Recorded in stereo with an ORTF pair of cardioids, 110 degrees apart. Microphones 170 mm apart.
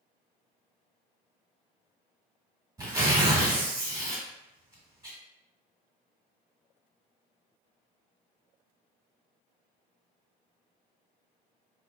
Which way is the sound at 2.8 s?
20° right.